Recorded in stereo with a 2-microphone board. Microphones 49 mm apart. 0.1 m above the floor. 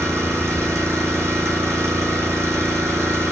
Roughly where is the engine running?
Right.